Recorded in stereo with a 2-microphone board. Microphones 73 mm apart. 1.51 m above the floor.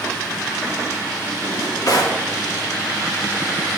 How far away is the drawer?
About 1.9 m.